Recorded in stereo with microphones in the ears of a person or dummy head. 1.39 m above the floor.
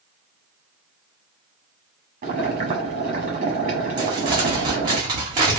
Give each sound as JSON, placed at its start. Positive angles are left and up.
{"t": 2.2, "sound": "boiling", "side_deg": -45, "distance_m": 1.0}
{"t": 4.0, "sound": "crumpling", "side_deg": -20, "distance_m": 0.8}